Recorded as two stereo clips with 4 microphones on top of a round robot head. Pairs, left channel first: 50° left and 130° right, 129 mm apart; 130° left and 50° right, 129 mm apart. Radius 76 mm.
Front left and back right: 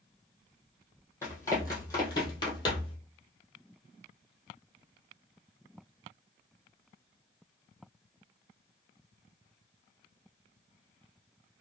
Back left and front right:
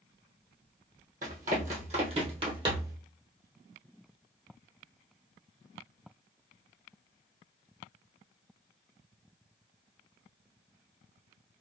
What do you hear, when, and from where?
1.2 s running footsteps: 25° right, 1.8 m; by 3.0 s 10° left, 1.2 m